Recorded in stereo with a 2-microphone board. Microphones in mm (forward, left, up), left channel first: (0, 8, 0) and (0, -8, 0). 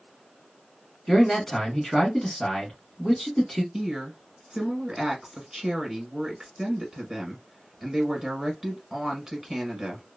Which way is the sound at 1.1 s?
15° left (ahead or behind).